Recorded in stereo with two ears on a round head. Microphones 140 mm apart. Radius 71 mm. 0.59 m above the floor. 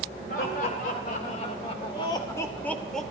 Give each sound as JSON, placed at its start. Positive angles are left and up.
{"t": 0.3, "sound": "laughter", "side_deg": 70, "distance_m": 2.5}